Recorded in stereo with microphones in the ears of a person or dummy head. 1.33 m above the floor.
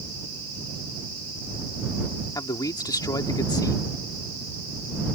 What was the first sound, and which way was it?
A man speaking, 20° left (ahead or behind).